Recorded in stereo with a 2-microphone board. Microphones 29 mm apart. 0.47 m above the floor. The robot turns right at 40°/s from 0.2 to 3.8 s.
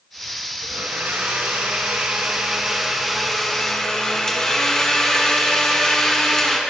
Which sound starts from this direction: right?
A blender, at 0.6 s.